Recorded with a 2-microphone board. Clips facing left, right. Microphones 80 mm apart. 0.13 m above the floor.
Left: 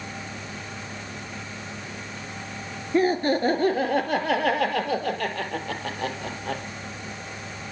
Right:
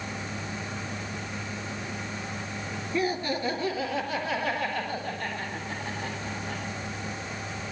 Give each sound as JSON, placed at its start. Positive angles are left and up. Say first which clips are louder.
{"t": 2.9, "sound": "laughter", "louder": "left 7 dB", "side_deg": 40, "distance_m": 2.5}